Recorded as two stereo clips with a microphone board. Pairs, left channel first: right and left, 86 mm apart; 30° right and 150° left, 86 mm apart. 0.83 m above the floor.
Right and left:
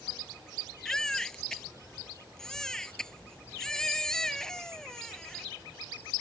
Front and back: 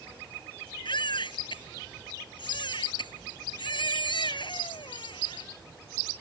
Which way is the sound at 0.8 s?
10° right.